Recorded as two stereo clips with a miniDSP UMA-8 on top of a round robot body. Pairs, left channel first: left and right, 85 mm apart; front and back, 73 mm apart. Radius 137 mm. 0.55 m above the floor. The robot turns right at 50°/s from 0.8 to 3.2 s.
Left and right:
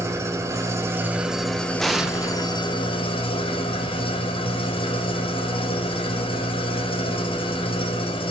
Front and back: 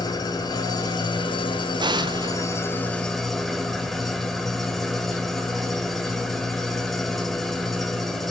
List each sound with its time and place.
0.0 s an engine running: 35° right, 1.8 m; by 8.3 s 85° left, 1.8 m
1.8 s an explosion: 175° left, 0.7 m; by 2.6 s 145° right, 0.7 m